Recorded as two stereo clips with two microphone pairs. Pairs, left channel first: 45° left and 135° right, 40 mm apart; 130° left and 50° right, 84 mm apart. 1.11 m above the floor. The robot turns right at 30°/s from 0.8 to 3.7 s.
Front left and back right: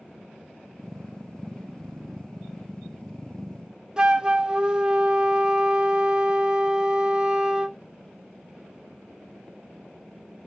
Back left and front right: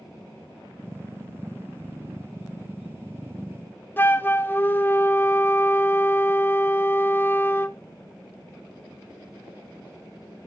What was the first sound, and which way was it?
A flute, 175° left.